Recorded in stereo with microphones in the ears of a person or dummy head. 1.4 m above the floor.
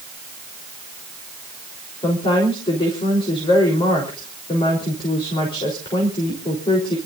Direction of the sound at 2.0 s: 25° left (ahead or behind).